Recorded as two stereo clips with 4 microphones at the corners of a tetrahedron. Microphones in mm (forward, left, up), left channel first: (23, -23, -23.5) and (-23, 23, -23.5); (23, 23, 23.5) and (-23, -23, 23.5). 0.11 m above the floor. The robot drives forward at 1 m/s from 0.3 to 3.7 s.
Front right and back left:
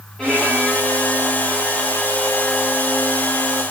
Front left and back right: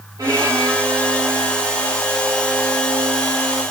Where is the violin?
125° right, 8.5 m; by 3.6 s 140° right, 11 m.